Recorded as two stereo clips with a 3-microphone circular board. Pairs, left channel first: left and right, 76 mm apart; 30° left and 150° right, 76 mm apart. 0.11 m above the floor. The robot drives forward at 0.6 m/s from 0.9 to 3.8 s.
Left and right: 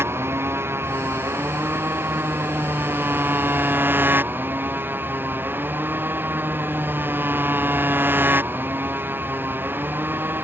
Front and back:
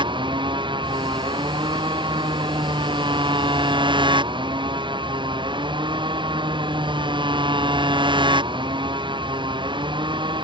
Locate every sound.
0.0 s a motorcycle: 150° right; by 10.4 s 155° right